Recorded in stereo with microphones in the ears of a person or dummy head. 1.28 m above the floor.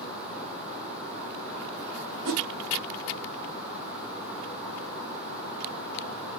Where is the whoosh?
60° right (ahead or behind), 1.0 m.